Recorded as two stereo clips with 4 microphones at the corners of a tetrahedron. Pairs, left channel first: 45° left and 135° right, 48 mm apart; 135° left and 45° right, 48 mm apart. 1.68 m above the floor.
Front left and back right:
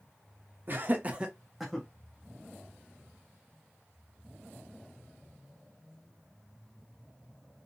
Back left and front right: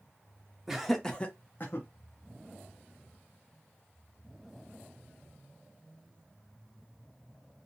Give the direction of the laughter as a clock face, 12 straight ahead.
4 o'clock.